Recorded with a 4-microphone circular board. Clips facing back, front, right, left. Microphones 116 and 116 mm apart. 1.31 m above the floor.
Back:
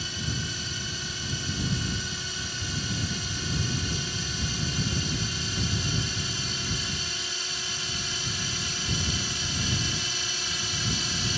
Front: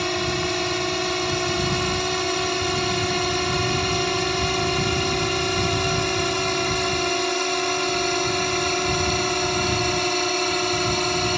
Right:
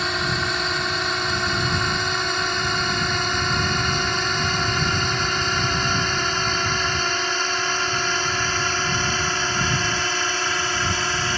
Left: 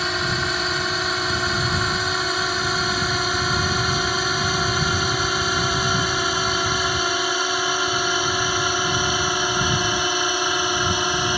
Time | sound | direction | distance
0.0 | a drone | straight ahead | ?